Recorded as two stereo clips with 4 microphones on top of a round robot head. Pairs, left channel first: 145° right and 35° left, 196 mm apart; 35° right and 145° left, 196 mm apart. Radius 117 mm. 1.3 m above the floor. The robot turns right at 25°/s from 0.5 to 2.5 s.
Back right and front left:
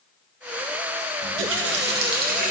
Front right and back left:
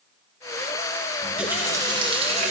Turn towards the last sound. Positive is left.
turn(degrees=90)